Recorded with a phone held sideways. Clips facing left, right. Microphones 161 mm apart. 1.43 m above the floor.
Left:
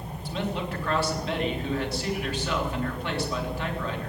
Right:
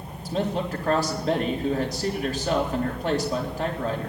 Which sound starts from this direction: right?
A man speaking, at 0.2 s.